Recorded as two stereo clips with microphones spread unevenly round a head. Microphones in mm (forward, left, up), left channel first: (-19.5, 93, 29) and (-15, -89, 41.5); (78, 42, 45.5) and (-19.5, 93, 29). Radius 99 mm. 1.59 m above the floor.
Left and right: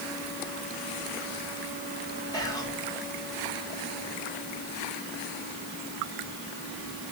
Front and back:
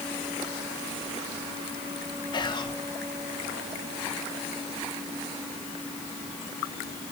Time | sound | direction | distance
2.3 | whispering | 20° left | 2 m